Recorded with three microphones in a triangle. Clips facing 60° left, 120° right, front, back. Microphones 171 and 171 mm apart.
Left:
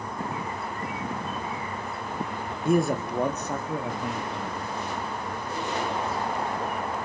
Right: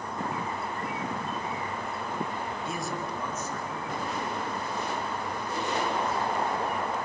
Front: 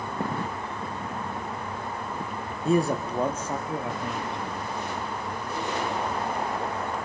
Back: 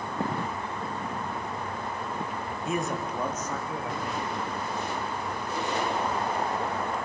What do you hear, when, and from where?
2.6 s a man speaking: 45° left, 2.0 m; by 4.6 s 65° left, 4.5 m